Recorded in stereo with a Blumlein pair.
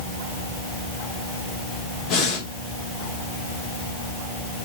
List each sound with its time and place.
2.1 s breathing: 40° left, 2.5 m